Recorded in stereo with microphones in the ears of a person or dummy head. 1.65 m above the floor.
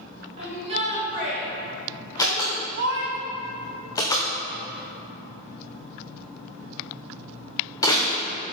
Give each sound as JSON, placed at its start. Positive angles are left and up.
{"t": 0.4, "sound": "a shout", "side_deg": -35, "distance_m": 2.5}
{"t": 2.2, "sound": "a door slam", "side_deg": 15, "distance_m": 0.5}